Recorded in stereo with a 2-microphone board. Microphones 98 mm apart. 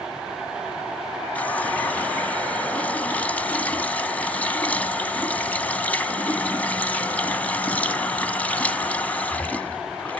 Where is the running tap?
15° left (ahead or behind), 0.9 m.